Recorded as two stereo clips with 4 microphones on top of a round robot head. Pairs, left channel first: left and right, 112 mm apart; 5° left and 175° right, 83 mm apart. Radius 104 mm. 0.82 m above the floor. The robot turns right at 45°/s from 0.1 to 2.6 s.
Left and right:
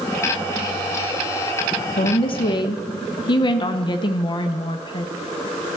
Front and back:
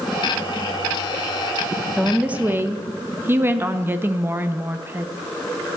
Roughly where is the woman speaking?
Left.